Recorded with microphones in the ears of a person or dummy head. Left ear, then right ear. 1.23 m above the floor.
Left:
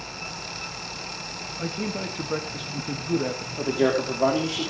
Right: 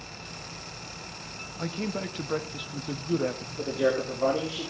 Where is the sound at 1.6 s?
15° right (ahead or behind), 1.0 m.